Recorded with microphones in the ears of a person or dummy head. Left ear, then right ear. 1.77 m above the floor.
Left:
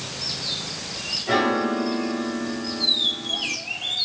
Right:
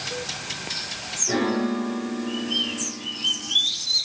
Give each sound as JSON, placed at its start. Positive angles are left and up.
{"t": 1.3, "sound": "a piano", "side_deg": 60, "distance_m": 3.5}